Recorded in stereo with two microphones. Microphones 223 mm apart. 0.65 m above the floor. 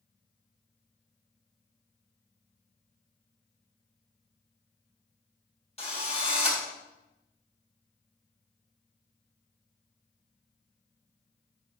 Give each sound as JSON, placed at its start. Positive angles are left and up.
{"t": 5.8, "sound": "a drill", "side_deg": 30, "distance_m": 1.9}